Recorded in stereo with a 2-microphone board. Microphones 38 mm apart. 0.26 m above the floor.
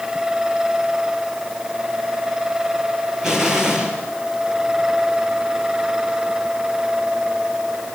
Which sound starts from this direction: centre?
An explosion, at 3.2 s.